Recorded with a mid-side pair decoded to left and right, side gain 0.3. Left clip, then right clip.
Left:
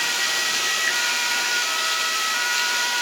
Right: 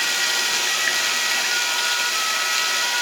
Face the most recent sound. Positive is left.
turn(degrees=-40)